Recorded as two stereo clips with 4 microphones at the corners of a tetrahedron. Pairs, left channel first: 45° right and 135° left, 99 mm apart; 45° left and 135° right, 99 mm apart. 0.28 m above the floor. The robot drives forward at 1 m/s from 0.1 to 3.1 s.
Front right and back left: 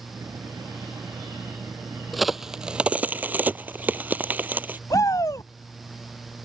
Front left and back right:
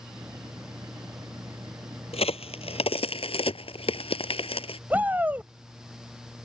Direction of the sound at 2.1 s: 45° left.